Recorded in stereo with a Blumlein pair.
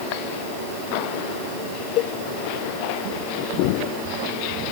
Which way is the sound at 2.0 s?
35° left.